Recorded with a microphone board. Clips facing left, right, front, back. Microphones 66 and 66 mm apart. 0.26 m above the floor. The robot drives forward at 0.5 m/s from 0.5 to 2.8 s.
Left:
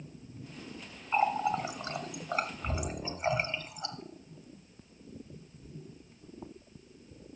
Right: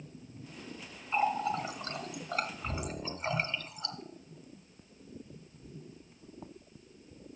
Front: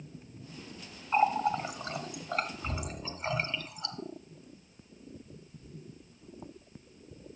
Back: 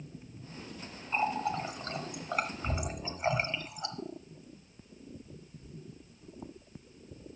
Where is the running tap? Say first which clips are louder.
Left 2 dB, front 5 dB; 30° left, 0.9 m; by 4.0 s 140° left, 0.9 m.